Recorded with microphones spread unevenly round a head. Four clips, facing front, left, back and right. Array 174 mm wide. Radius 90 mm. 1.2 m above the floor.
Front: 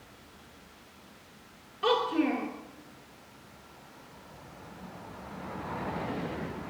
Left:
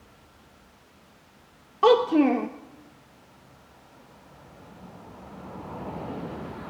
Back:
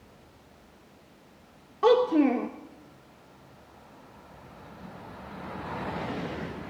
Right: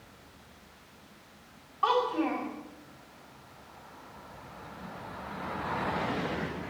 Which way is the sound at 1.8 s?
120° left.